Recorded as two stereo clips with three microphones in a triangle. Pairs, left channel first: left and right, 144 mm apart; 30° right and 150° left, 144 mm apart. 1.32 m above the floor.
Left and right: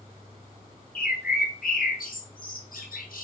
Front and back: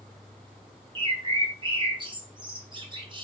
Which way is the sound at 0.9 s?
95° left.